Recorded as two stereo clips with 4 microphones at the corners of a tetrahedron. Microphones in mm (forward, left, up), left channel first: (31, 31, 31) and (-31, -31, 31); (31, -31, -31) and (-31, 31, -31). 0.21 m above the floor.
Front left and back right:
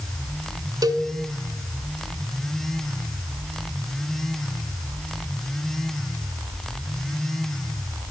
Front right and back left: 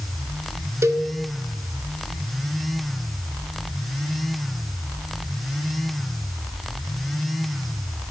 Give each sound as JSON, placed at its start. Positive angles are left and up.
{"t": 0.8, "sound": "a cowbell", "azimuth_deg": -170, "distance_m": 0.5}